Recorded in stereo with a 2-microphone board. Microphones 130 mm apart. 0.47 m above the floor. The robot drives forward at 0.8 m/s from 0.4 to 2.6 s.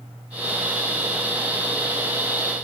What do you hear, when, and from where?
Only background noise.